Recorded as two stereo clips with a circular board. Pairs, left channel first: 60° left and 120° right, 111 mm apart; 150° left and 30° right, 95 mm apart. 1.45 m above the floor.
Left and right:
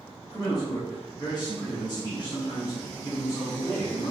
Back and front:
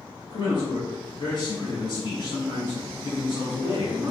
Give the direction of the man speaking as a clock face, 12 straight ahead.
8 o'clock.